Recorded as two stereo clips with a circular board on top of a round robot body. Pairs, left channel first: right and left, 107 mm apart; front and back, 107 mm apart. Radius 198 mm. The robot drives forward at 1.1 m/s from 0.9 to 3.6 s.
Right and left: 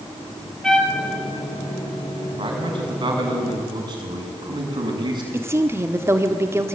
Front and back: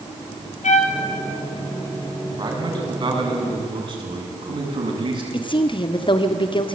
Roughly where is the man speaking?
Behind left.